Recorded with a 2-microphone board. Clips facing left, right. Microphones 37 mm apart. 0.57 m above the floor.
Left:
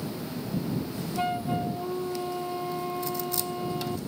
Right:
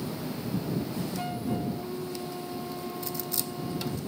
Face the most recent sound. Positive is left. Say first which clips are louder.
# left 6 dB
turn(degrees=30)  # may be behind; listen again after turning